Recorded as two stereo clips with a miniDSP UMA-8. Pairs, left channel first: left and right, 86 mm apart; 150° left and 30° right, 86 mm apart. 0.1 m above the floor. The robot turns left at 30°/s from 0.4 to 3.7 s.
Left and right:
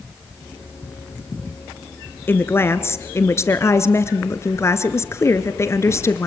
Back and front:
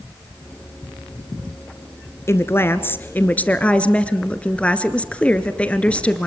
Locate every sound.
2.3 s a woman speaking: 130° left, 1.2 m; by 6.3 s 90° left, 1.2 m